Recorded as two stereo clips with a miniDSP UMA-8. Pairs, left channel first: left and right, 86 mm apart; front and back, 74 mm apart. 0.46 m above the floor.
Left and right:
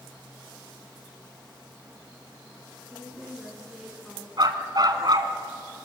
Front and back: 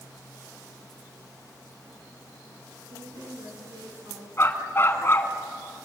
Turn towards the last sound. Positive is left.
turn(degrees=-55)